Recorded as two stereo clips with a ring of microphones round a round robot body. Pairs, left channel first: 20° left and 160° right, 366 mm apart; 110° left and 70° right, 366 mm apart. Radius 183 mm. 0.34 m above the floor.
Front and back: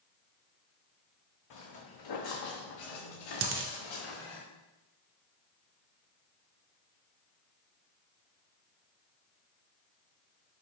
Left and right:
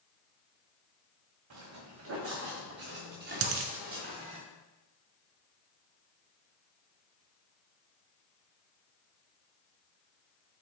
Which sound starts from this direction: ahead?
Footsteps, at 1.5 s.